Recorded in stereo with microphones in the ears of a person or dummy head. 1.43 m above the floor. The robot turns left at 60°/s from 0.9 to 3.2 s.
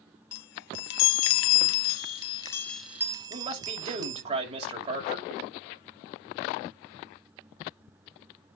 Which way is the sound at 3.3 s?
35° right (ahead or behind).